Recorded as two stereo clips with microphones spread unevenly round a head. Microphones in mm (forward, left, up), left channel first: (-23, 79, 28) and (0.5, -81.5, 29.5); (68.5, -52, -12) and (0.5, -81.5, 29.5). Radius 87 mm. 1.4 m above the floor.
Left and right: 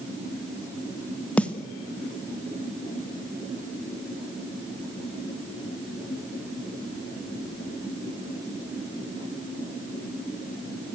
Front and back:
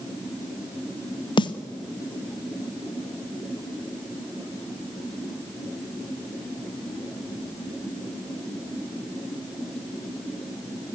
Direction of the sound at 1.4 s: 15° left.